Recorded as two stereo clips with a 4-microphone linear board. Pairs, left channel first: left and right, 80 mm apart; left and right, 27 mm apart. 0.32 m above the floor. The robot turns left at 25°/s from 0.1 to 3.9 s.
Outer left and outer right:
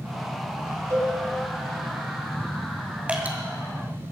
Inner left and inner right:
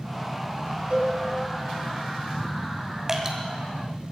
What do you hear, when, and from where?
0.9 s a cowbell: 40° right (ahead or behind), 3.5 m; by 1.1 s 35° right (ahead or behind), 3.5 m
3.1 s dripping: 15° right (ahead or behind), 2.5 m; by 3.4 s 20° right (ahead or behind), 2.5 m